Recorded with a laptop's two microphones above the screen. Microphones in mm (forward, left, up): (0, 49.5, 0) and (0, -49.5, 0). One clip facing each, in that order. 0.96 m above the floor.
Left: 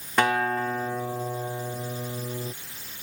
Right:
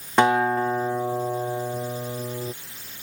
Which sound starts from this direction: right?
A guitar, at 0.2 s.